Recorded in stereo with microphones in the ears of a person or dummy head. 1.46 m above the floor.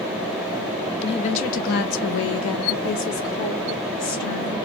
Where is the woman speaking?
30° left (ahead or behind), 0.8 m.